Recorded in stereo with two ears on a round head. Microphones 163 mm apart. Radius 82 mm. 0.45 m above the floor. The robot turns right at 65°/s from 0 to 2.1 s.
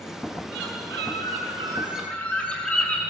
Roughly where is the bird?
Right.